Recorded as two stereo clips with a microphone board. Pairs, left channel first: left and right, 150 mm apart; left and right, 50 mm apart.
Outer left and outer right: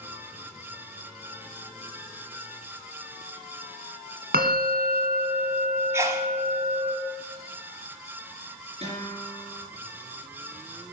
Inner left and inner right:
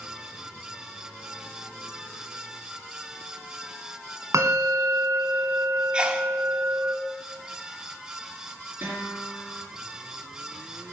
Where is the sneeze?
15° right (ahead or behind), 1.3 m.